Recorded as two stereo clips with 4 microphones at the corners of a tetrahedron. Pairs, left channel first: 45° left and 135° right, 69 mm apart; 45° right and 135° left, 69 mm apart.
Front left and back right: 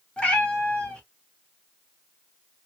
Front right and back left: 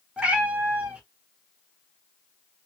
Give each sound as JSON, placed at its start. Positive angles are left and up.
{"t": 0.2, "sound": "a cat meowing", "azimuth_deg": 95, "distance_m": 0.9}